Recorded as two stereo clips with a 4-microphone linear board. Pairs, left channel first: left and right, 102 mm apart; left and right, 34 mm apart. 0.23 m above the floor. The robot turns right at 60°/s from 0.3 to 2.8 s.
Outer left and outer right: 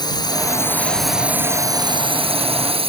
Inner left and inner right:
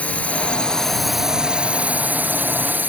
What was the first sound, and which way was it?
A drone, 135° left.